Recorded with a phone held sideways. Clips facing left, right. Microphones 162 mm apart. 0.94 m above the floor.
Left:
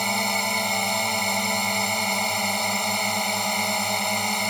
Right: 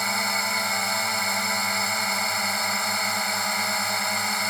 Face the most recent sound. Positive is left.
turn(degrees=20)  # may be behind; listen again after turning